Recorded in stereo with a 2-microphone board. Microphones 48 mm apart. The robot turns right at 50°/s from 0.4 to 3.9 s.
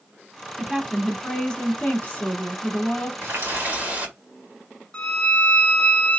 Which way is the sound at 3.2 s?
75° right.